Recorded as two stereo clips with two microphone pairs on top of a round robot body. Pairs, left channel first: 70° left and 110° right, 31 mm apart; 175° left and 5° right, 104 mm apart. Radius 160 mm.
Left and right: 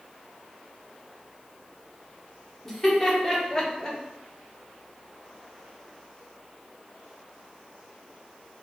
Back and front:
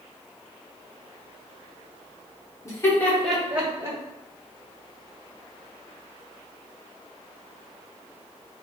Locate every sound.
2.6 s laughter: 150° left, 1.8 m; by 4.0 s 35° left, 1.5 m